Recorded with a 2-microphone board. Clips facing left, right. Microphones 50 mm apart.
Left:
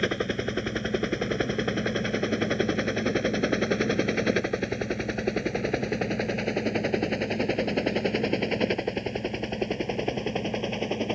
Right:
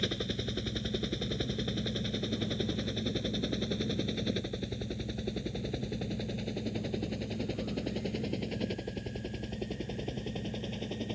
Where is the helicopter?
50° left (ahead or behind); by 11.2 s 60° left (ahead or behind).